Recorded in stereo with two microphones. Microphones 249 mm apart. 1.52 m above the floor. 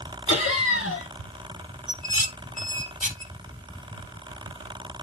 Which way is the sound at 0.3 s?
65° left (ahead or behind).